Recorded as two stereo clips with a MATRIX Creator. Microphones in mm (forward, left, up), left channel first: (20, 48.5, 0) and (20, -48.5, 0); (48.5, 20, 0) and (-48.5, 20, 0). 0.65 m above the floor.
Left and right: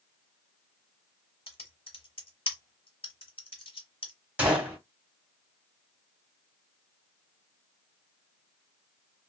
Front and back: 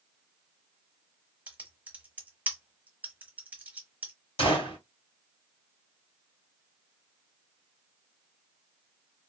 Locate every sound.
1.5 s typing on a keyboard: 105° left, 1.0 m
4.4 s a gunshot: 15° right, 1.6 m